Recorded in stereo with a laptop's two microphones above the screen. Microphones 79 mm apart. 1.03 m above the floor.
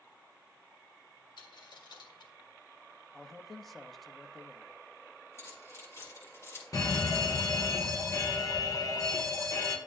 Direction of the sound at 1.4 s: 75° left (ahead or behind).